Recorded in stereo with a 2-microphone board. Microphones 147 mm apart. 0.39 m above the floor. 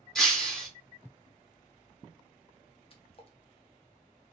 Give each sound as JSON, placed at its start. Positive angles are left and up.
{"t": 0.1, "sound": "breaking glass", "side_deg": 5, "distance_m": 0.8}
{"t": 2.9, "sound": "a splash", "side_deg": 40, "distance_m": 0.7}